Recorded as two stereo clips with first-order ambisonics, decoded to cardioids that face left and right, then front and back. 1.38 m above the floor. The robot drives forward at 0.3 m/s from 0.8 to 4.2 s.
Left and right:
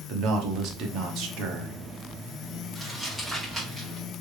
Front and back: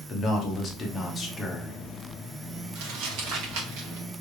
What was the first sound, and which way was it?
A man speaking, 60° right.